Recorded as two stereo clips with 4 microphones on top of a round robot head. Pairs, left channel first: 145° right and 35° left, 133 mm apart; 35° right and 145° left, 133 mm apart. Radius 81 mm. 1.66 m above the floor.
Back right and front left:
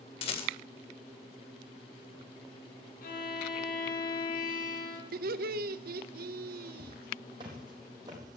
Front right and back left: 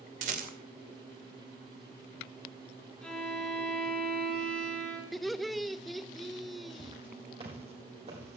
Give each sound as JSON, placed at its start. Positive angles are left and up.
{"t": 0.2, "sound": "a rattle", "azimuth_deg": 170, "distance_m": 2.0}
{"t": 3.0, "sound": "a violin", "azimuth_deg": -120, "distance_m": 8.5}
{"t": 5.1, "sound": "laughter", "azimuth_deg": 55, "distance_m": 0.8}
{"t": 6.8, "sound": "footsteps", "azimuth_deg": 90, "distance_m": 4.0}